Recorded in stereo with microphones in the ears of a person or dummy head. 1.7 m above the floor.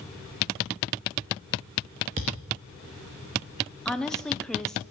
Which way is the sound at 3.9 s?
5° left (ahead or behind).